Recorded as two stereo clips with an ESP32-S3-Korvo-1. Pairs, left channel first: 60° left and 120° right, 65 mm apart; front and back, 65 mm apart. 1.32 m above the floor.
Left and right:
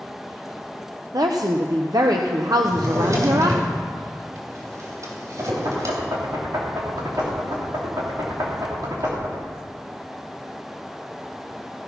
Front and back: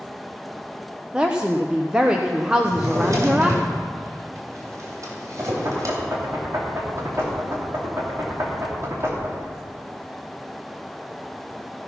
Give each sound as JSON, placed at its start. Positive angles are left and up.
{"t": 1.1, "sound": "a woman speaking", "azimuth_deg": -105, "distance_m": 0.6}
{"t": 2.6, "sound": "a drawer", "azimuth_deg": -145, "distance_m": 3.0}
{"t": 5.4, "sound": "knocking", "azimuth_deg": -130, "distance_m": 3.0}